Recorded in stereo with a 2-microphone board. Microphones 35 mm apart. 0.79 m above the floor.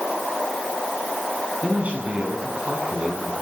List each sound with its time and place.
1.6 s a man speaking: 40° right (ahead or behind), 7.5 m